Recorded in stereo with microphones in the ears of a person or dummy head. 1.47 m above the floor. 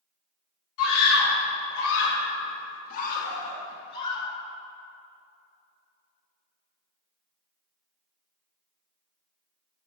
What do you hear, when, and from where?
0.8 s a scream: 80° left, 2.5 m; by 4.3 s 25° left (ahead or behind), 1.7 m